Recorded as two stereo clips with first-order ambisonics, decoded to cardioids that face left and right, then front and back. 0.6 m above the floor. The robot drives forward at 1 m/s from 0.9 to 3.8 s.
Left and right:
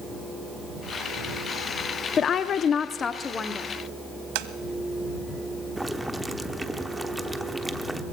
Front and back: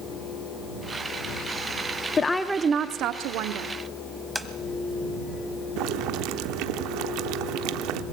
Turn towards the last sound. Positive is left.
turn(degrees=-175)